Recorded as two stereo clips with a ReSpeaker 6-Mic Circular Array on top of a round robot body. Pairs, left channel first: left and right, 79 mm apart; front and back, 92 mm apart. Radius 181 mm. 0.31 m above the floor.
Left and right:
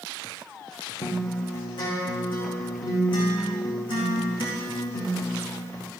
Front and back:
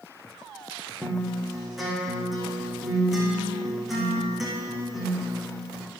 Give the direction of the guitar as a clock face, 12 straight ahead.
9 o'clock.